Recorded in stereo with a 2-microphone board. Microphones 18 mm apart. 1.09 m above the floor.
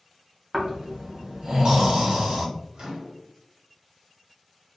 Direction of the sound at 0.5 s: 50° right (ahead or behind).